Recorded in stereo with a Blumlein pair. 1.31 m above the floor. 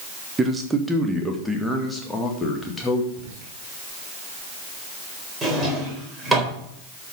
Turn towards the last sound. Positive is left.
turn(degrees=-10)